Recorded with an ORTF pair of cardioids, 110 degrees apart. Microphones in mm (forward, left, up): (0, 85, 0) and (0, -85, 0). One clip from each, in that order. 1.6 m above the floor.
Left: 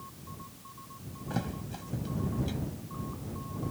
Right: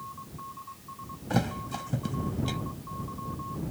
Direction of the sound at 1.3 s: 45° right.